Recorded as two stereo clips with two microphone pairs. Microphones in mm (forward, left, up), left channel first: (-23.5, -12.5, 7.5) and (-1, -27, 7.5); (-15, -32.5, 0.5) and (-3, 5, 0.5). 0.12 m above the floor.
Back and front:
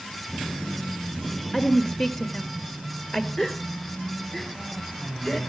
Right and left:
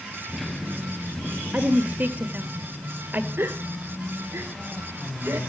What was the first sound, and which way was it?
A woman speaking, 90° left.